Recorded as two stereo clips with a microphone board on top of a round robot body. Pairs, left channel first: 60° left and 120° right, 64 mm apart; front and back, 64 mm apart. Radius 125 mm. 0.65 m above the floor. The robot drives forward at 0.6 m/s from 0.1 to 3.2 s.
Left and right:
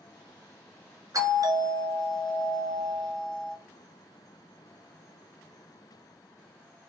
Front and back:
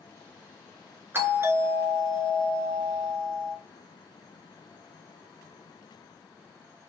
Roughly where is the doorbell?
Behind right.